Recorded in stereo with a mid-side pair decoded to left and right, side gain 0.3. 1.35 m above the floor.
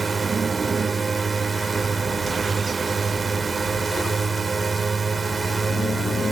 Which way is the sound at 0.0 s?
45° right.